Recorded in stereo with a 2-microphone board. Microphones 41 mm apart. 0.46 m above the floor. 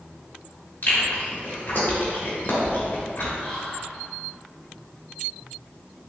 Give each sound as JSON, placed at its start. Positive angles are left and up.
{"t": 0.8, "sound": "chewing", "side_deg": 55, "distance_m": 1.0}
{"t": 3.4, "sound": "whispering", "side_deg": 15, "distance_m": 0.7}